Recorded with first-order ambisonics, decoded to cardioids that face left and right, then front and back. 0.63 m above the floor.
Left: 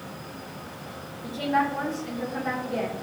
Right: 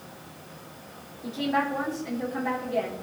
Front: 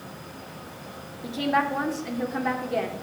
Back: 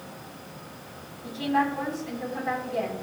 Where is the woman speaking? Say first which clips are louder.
Left 2 dB, front 1 dB; 5° right, 2 m.